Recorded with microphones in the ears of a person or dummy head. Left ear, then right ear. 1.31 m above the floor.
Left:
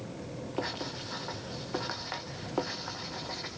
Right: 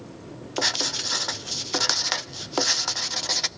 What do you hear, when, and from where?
0.6 s writing: 75° right (ahead or behind), 0.6 m